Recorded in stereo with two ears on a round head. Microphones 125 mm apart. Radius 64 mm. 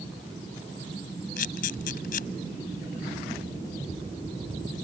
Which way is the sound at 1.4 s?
65° left (ahead or behind).